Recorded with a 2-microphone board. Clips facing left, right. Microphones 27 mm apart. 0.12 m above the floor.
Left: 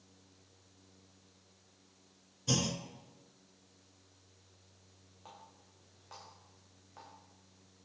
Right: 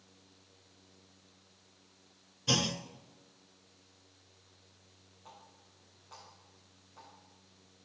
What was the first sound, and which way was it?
A clunk, 35° right (ahead or behind).